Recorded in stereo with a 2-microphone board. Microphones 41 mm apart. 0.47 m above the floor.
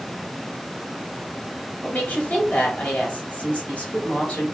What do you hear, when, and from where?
1.8 s a woman speaking: 40° left (ahead or behind), 2.5 m